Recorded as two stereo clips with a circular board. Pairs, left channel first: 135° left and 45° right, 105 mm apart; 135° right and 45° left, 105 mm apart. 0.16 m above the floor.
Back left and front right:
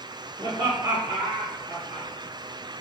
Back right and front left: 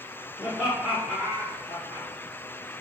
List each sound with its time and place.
0.4 s laughter: 30° right, 1.8 m; by 2.1 s 40° left, 1.1 m